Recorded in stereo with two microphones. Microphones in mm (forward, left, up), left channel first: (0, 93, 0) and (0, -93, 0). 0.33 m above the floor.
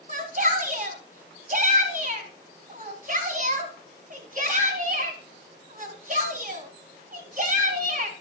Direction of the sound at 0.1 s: 45° right (ahead or behind).